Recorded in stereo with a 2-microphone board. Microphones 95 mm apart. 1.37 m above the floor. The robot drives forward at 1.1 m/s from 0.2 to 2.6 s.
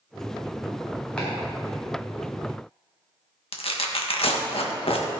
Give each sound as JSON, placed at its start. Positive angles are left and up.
{"t": 1.2, "sound": "chopping", "side_deg": 10, "distance_m": 4.0}
{"t": 3.5, "sound": "tearing paper", "side_deg": 70, "distance_m": 1.3}